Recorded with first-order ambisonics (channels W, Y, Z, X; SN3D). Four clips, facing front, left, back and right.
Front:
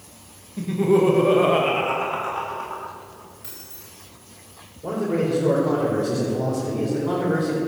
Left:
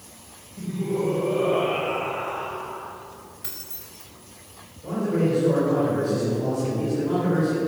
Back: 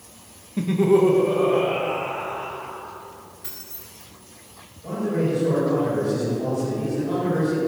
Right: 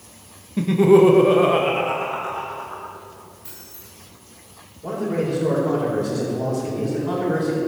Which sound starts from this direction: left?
Keys jangling, at 3.4 s.